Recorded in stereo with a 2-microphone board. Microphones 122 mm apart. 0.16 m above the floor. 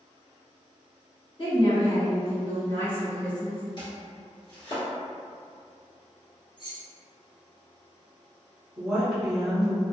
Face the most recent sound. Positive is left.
turn(degrees=0)  # may be behind; listen again after turning